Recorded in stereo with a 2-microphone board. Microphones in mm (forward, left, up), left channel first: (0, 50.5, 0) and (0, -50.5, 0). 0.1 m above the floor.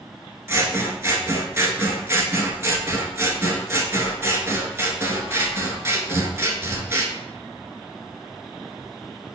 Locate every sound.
0.5 s scissors: 25° right (ahead or behind), 0.5 m